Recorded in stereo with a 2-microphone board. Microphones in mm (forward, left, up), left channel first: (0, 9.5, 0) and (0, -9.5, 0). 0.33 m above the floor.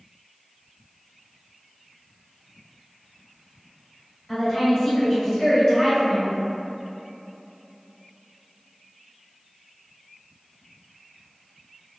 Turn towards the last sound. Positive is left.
turn(degrees=30)  # may be behind; listen again after turning